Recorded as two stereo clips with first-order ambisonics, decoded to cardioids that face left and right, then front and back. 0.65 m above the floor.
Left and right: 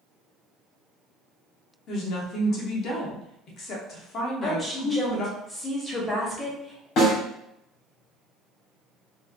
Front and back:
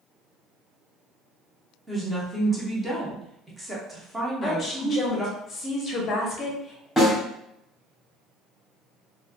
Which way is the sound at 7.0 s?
90° left.